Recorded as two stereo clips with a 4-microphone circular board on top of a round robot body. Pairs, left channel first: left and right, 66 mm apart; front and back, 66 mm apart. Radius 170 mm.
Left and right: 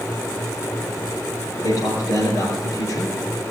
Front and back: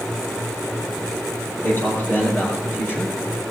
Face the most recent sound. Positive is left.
turn(degrees=55)